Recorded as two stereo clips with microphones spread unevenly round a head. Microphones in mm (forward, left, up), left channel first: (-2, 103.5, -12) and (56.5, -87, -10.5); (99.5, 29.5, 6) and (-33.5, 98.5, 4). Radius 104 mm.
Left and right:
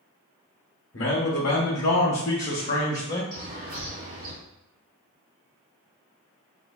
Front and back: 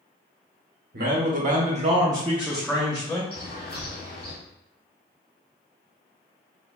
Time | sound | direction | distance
0.9 | a man speaking | 145° left | 1.0 m
3.3 | a bird | 35° right | 1.7 m